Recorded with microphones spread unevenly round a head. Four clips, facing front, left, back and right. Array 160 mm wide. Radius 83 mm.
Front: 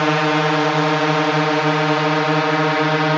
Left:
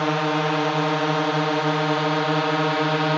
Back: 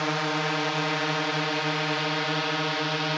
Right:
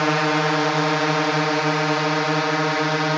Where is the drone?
10° right; by 3.2 s straight ahead.